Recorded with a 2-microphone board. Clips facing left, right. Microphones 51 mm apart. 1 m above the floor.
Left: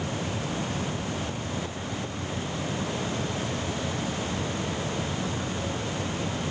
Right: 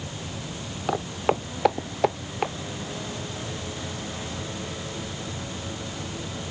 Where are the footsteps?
85° right.